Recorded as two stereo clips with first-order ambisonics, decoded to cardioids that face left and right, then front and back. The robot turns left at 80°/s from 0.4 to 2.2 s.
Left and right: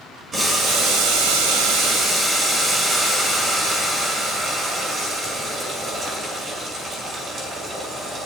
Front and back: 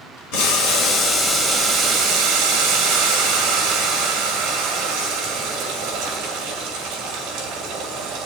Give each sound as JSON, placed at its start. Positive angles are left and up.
{"t": 0.3, "sound": "boiling", "azimuth_deg": -10, "distance_m": 5.5}